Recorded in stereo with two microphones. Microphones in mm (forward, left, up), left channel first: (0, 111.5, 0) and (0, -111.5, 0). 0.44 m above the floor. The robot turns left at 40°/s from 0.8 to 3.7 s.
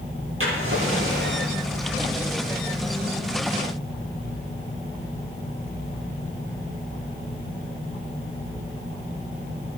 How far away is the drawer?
About 7.5 m.